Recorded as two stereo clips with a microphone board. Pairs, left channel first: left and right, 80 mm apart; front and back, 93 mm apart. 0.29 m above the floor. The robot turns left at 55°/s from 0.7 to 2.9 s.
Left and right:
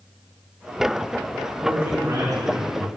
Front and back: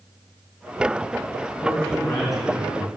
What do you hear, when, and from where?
1.6 s a man speaking: 55° right, 3 m; by 2.9 s 125° right, 3 m